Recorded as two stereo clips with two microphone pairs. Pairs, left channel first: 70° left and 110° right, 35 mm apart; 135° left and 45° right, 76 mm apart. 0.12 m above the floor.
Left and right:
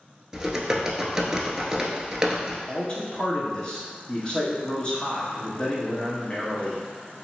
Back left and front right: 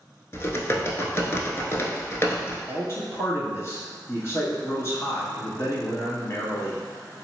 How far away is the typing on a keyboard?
About 0.6 m.